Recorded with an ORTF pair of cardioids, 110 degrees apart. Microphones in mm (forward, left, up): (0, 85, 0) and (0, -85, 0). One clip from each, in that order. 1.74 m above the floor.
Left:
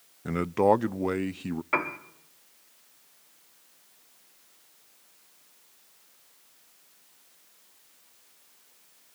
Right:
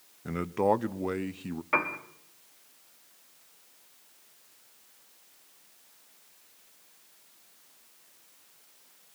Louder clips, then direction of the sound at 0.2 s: Left 4 dB; 20° left.